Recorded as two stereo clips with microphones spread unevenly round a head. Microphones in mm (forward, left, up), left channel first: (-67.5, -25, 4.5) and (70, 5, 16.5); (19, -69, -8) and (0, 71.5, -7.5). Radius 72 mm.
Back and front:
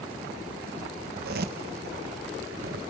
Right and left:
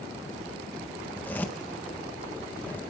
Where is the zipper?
5° right, 1.1 m.